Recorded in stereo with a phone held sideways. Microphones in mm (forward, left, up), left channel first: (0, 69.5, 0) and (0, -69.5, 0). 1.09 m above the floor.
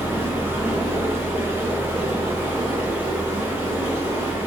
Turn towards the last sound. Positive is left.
turn(degrees=-15)  # may be behind; listen again after turning